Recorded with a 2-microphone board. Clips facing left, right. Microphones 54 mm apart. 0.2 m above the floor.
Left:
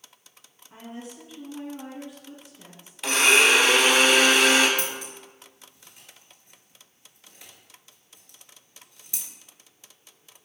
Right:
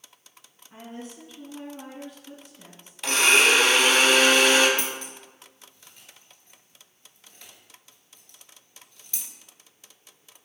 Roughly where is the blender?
Centre.